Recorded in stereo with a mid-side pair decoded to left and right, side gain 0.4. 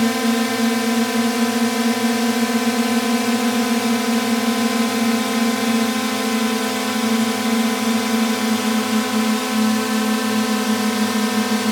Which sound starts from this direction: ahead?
A drone, at 0.0 s.